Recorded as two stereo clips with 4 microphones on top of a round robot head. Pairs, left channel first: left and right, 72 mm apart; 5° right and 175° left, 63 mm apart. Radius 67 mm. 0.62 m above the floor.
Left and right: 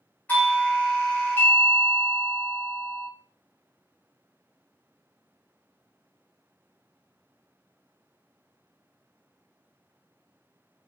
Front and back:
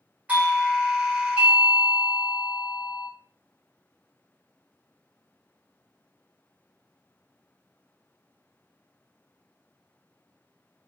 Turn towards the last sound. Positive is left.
turn(degrees=125)